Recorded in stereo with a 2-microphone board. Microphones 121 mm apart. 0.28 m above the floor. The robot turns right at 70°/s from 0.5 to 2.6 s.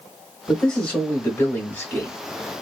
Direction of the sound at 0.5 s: 5° left (ahead or behind).